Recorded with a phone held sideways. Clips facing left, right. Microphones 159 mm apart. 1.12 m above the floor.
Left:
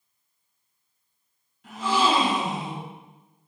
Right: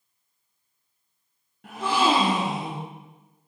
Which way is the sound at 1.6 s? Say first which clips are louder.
Right 1 dB; 60° right (ahead or behind).